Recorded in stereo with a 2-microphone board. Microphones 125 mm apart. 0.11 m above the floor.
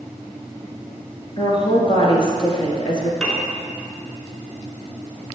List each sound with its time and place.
1.4 s a woman speaking: 40° left (ahead or behind), 1.6 m
3.2 s a piano: 5° left (ahead or behind), 1.5 m